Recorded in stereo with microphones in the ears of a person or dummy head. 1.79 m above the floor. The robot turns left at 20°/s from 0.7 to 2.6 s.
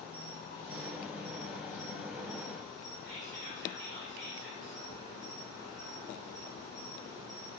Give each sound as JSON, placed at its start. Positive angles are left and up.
{"t": 0.0, "sound": "an insect", "azimuth_deg": -135, "distance_m": 1.2}
{"t": 3.0, "sound": "whispering", "side_deg": -70, "distance_m": 0.7}